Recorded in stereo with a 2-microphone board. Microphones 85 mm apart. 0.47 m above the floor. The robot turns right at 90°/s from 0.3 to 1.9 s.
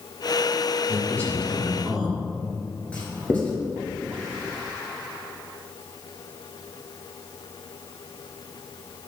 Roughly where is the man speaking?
Left.